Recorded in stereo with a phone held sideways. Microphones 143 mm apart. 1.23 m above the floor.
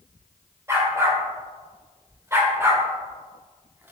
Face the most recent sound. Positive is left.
turn(degrees=-15)  # may be behind; listen again after turning